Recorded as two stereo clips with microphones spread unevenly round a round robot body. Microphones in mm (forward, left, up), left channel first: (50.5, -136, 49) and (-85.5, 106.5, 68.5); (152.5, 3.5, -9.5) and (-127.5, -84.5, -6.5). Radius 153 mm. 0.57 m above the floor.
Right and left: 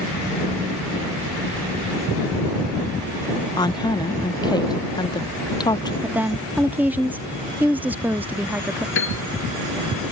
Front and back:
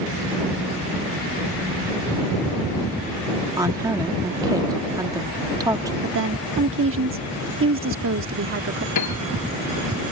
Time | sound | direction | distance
3.6 | a woman speaking | 100° right | ?
6.0 | a woman speaking | 155° right | ?
8.9 | a piano | 10° right | ?